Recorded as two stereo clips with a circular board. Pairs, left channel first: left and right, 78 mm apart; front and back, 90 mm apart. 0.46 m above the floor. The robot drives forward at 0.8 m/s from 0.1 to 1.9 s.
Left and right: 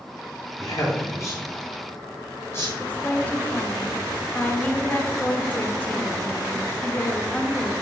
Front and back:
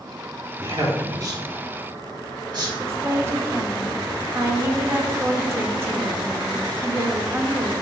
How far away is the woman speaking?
About 1.0 m.